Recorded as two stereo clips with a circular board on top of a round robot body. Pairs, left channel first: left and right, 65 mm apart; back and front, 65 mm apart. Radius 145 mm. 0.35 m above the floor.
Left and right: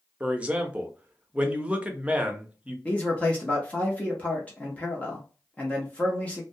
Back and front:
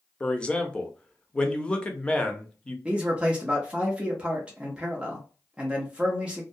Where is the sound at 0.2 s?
130° right, 0.8 m.